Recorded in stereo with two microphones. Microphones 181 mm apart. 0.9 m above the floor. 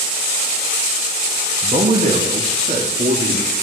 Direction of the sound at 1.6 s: 40° right (ahead or behind).